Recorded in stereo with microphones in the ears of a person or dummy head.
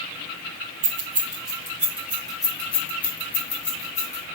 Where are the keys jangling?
30° right (ahead or behind), 0.8 m; by 4.2 s 10° left (ahead or behind), 1.8 m.